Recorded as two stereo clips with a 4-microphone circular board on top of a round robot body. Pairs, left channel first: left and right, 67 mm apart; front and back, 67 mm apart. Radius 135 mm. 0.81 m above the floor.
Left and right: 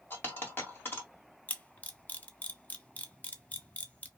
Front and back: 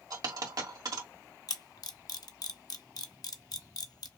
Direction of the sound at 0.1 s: 150° left.